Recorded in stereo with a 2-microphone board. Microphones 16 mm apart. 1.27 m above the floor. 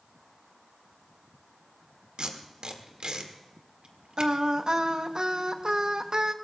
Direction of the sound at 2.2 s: 65° right (ahead or behind).